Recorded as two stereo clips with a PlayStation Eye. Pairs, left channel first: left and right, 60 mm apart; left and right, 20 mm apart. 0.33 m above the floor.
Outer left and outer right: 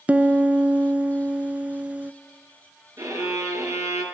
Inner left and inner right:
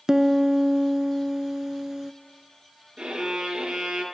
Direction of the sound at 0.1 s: 25° right (ahead or behind).